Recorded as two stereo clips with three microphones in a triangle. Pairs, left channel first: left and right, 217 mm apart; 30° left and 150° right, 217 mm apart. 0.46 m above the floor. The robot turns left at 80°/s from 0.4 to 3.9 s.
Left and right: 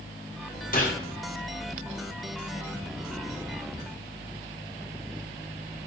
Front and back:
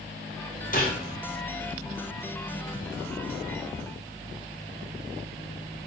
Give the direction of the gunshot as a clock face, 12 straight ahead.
10 o'clock.